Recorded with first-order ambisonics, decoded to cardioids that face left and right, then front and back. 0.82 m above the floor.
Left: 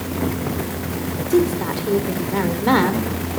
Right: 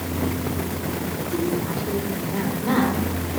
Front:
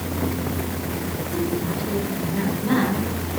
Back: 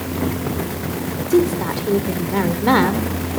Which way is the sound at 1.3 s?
145° left.